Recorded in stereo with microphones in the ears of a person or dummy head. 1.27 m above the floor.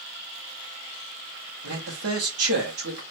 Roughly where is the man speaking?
Right.